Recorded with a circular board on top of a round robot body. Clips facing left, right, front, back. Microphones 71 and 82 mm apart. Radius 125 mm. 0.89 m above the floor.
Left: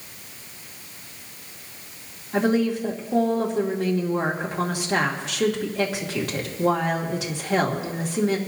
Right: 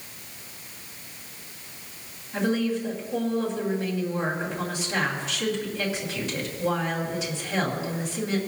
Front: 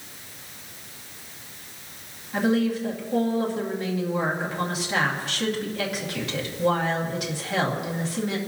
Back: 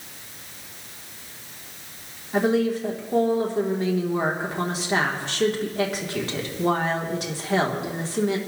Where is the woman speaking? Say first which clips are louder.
Left 4 dB, back 2 dB; 125° left, 2.5 m.